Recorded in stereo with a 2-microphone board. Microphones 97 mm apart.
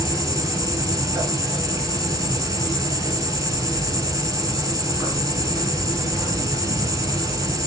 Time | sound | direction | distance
0.0 | an insect | 35° right (ahead or behind) | 3 m